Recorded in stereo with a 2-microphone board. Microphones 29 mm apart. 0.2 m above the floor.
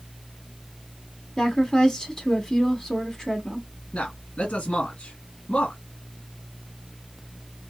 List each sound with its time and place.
1.4 s a woman speaking: 20° left (ahead or behind), 1.8 m
3.9 s a man speaking: 55° left (ahead or behind), 2 m